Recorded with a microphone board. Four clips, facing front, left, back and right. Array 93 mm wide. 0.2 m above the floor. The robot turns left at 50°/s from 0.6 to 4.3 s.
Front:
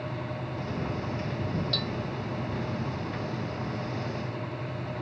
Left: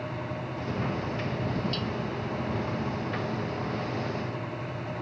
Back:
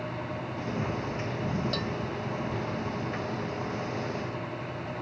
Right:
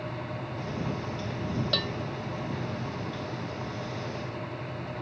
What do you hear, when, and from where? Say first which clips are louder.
1.7 s a bell: right 1 dB, back 1 dB; 105° right; by 2.0 s 115° right